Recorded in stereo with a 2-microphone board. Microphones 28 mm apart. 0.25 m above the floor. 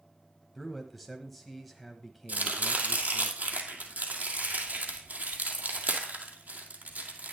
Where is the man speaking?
Centre (ahead or behind), 1.0 m.